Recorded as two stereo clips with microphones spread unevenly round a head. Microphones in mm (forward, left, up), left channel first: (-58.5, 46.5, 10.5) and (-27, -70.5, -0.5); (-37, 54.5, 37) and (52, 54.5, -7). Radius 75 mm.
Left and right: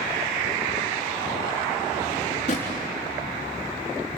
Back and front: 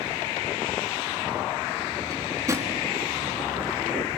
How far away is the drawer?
About 4 m.